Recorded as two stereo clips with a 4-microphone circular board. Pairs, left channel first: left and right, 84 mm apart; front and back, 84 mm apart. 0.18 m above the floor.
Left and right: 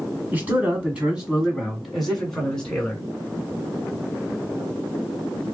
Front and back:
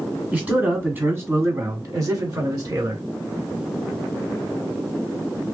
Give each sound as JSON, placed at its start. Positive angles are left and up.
{"t": 0.3, "sound": "a man speaking", "azimuth_deg": -130, "distance_m": 1.4}